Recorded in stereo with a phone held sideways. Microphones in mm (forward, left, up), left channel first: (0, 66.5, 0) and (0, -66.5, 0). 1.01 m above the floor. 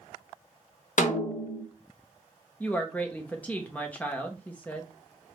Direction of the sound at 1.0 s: 70° left (ahead or behind).